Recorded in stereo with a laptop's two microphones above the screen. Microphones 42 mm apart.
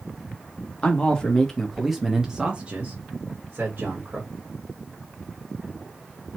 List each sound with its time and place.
0.8 s a man speaking: 30° left (ahead or behind), 1.0 m; by 4.3 s 60° right (ahead or behind), 1.4 m